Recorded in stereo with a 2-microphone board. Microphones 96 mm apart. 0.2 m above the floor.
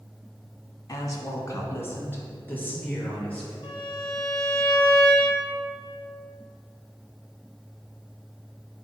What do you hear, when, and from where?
0.9 s a woman speaking: 40° left (ahead or behind), 1.3 m; by 3.5 s 15° left (ahead or behind), 4 m
3.6 s a violin: 55° left (ahead or behind), 1.9 m